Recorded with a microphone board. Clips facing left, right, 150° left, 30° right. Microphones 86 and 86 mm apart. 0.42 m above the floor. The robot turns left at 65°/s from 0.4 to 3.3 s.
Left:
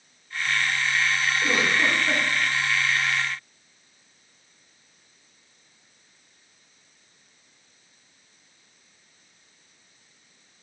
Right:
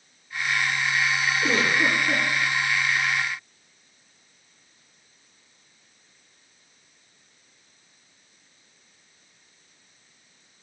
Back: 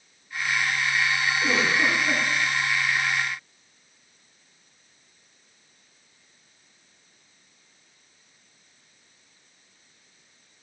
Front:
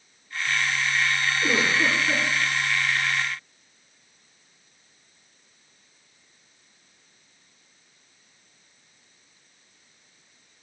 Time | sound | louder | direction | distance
1.4 | a giggle | right 1 dB, front 1 dB | 170° left | 3.5 m